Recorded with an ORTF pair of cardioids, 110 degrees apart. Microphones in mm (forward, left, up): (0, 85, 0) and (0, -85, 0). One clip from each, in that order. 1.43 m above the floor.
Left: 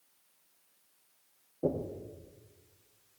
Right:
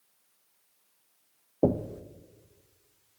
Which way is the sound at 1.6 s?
70° right.